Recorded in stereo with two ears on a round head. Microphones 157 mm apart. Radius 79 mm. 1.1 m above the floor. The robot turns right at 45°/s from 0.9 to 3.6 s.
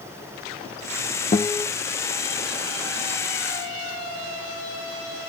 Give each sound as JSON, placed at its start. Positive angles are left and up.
{"t": 1.3, "sound": "a guitar", "side_deg": 35, "distance_m": 0.8}